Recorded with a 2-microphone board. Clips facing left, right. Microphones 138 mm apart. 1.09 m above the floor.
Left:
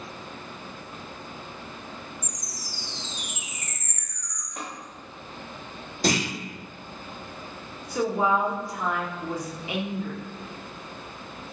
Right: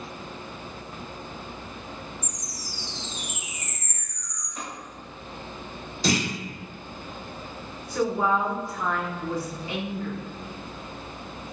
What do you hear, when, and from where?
2.2 s a chime: 20° right (ahead or behind), 0.8 m
4.6 s tapping: 50° left (ahead or behind), 1.6 m
6.0 s a clunk: 50° left (ahead or behind), 1.3 m
7.9 s a woman speaking: 15° left (ahead or behind), 0.5 m